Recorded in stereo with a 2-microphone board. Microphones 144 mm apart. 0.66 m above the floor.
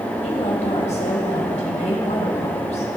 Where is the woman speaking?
55° left (ahead or behind), 3 m.